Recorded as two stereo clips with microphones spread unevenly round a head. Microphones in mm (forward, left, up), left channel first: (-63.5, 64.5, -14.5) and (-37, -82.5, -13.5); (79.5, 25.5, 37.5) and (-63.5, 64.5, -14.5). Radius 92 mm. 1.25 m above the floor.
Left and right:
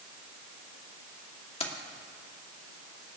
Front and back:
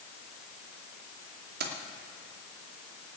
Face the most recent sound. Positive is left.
turn(degrees=150)